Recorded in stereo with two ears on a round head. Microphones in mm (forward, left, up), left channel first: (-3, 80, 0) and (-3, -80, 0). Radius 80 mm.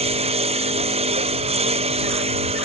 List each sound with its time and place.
0.0 s a lawn mower: 35° right (ahead or behind)